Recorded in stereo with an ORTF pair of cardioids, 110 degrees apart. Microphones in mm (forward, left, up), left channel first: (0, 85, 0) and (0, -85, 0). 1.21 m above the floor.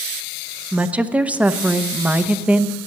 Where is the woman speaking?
10° right, 0.6 m.